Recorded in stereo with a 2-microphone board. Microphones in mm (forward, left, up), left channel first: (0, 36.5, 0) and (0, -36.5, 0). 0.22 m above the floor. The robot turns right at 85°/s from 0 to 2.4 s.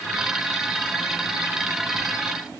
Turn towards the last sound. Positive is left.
No sound to turn to.